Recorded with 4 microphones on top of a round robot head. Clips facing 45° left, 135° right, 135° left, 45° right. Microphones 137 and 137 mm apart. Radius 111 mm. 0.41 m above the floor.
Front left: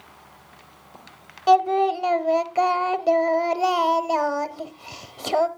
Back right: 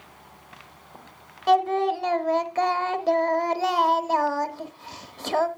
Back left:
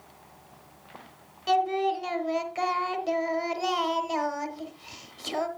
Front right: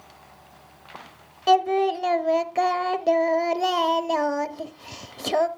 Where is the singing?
25° right, 0.7 m.